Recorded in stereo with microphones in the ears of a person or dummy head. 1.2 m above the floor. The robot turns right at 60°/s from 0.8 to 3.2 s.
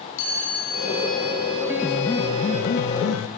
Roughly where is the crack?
No crack in this recording.